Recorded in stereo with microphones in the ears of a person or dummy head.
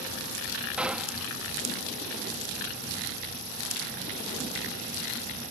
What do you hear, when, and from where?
0.8 s a gunshot: 5° right (ahead or behind)